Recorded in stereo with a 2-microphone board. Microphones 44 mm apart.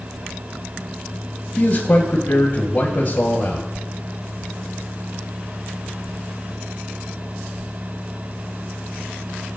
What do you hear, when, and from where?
1.6 s a man speaking: 50° left (ahead or behind), 1.7 m